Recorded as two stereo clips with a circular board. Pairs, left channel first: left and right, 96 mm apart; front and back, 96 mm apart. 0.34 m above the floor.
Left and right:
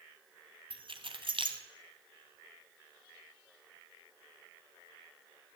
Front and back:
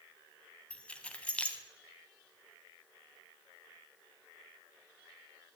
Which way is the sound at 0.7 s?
75° right.